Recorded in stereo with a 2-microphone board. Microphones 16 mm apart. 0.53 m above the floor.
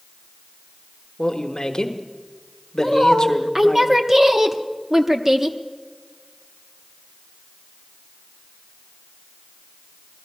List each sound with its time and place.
1.2 s a man speaking: 50° left (ahead or behind), 1.2 m
2.8 s a woman speaking: 20° right (ahead or behind), 0.9 m